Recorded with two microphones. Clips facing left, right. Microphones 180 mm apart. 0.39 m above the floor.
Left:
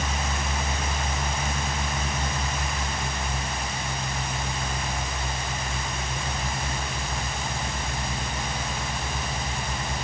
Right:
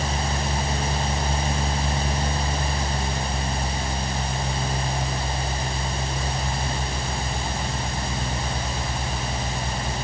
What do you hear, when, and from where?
Only background noise.